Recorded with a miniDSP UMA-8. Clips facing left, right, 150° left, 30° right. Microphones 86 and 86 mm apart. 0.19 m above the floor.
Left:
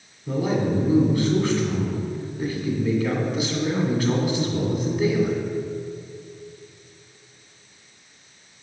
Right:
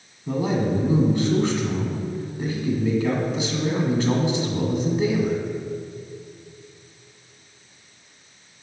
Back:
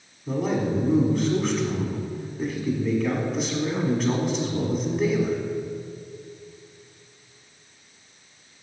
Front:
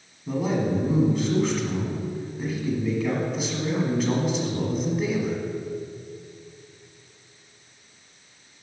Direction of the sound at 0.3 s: 120° right.